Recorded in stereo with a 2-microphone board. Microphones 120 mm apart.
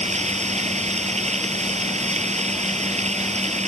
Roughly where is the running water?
Right.